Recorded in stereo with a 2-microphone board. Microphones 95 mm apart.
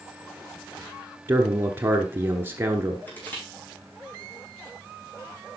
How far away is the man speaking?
About 1.2 m.